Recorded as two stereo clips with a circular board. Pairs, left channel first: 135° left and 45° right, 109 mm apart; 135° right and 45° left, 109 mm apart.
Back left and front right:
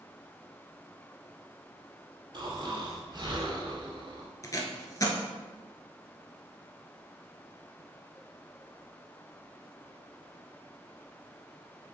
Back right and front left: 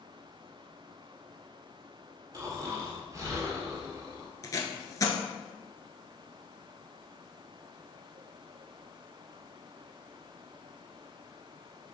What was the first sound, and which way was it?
Snoring, 10° right.